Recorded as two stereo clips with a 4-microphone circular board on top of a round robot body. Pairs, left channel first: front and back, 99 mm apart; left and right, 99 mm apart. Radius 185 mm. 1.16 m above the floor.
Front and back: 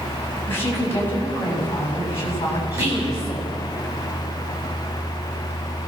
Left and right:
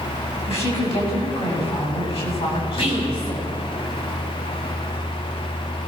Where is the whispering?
115° left, 8.5 m.